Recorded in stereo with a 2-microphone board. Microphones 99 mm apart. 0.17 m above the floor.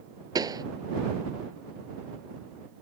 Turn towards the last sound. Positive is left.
turn(degrees=-40)  # may be behind; listen again after turning